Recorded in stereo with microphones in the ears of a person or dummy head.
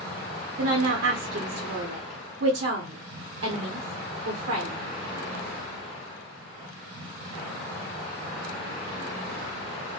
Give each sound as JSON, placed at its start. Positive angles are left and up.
{"t": 0.6, "sound": "a woman speaking", "side_deg": -55, "distance_m": 0.8}